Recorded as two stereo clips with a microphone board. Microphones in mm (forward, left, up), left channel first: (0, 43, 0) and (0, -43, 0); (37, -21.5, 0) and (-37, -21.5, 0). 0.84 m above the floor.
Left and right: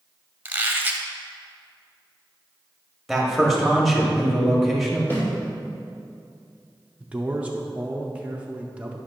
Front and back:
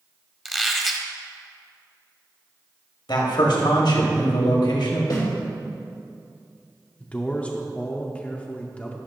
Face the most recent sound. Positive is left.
turn(degrees=-40)